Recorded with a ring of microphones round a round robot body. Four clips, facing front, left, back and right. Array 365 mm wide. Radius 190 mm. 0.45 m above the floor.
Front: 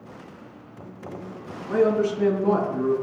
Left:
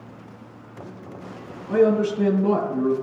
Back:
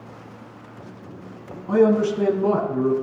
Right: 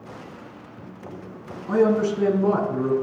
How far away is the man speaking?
About 4.5 m.